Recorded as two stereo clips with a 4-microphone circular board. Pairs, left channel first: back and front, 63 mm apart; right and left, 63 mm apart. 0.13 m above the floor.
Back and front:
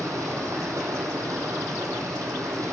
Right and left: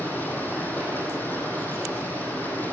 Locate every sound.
0.0 s running water: 30° right, 5.5 m